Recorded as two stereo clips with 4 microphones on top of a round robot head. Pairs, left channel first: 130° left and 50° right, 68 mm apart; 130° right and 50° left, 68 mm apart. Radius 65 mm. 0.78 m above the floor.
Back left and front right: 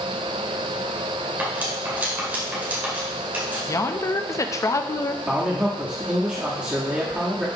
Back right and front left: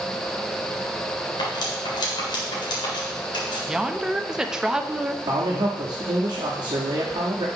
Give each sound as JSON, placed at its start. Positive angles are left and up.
{"t": 1.4, "sound": "cutlery clinking", "azimuth_deg": -115, "distance_m": 1.9}
{"t": 3.7, "sound": "a woman speaking", "azimuth_deg": 125, "distance_m": 0.7}
{"t": 5.3, "sound": "a man speaking", "azimuth_deg": 25, "distance_m": 1.3}